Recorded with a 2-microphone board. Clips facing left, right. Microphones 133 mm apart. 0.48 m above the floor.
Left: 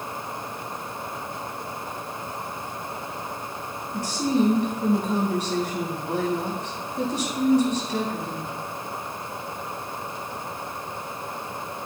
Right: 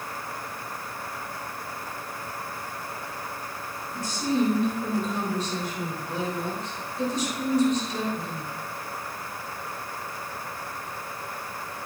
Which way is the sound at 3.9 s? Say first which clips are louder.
Left 3 dB; 75° left (ahead or behind).